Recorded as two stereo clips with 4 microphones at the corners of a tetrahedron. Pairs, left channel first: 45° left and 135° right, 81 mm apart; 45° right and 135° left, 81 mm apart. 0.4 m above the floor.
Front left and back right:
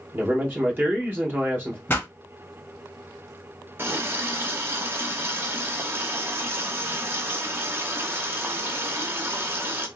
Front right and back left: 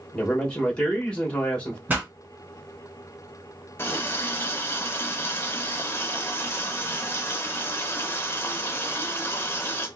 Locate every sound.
0.1 s a man speaking: 105° right, 1.2 m
1.9 s a pop: 85° left, 1.5 m
3.8 s a running tap: 85° right, 0.7 m